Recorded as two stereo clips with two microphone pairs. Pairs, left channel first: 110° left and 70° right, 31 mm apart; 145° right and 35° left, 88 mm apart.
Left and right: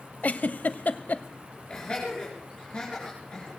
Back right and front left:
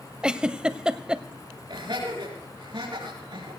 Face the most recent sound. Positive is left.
turn(degrees=50)